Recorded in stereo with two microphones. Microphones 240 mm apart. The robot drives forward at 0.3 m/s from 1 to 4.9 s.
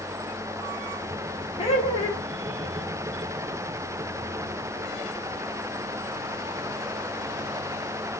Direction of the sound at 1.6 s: 25° left (ahead or behind).